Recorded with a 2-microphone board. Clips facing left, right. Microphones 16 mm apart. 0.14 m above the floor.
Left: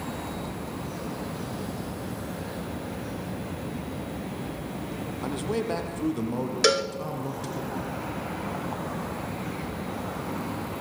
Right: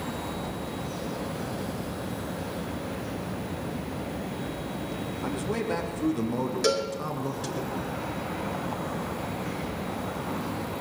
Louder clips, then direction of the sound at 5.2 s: Left 2 dB; 20° left (ahead or behind).